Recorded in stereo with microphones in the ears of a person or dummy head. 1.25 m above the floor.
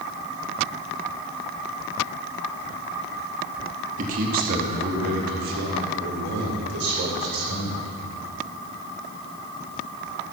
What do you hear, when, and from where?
4.0 s a man speaking: 40° right (ahead or behind), 1.6 m; by 7.9 s 60° right (ahead or behind), 5 m